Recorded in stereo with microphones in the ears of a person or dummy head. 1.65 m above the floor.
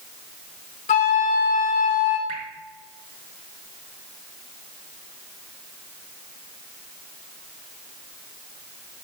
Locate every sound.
0.9 s a flute: 30° left (ahead or behind), 0.8 m
2.3 s dripping: 35° right (ahead or behind), 2 m